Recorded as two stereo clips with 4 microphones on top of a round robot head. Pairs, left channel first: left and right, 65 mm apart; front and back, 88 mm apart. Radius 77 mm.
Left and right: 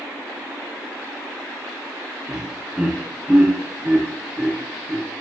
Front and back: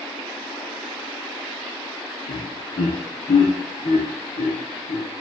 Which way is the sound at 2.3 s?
20° right.